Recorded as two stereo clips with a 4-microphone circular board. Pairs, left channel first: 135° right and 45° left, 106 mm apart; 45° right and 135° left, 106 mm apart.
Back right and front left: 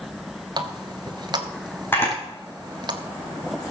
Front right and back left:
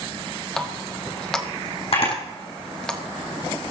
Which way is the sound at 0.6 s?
35° left.